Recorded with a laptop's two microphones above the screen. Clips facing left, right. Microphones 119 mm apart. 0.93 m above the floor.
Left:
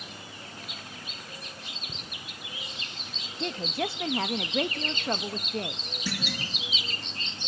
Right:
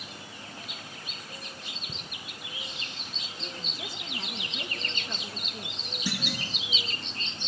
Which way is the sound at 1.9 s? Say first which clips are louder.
Right 2 dB; 10° right (ahead or behind).